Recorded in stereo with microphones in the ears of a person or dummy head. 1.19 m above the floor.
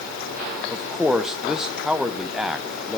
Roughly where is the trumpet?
I don't hear a trumpet.